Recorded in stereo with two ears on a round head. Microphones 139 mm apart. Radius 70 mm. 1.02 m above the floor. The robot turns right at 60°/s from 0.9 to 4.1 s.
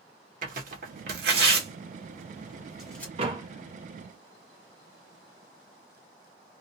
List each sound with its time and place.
0.4 s tearing paper: 60° right (ahead or behind), 0.9 m; by 3.1 s 15° left (ahead or behind), 0.9 m
3.2 s a door slam: 40° right (ahead or behind), 0.8 m; by 3.5 s 20° right (ahead or behind), 0.8 m